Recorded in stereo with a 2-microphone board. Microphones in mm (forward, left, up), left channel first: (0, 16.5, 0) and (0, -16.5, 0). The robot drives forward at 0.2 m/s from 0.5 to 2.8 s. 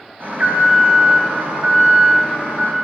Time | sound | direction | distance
0.2 | an alarm | 60° right (ahead or behind) | 3 m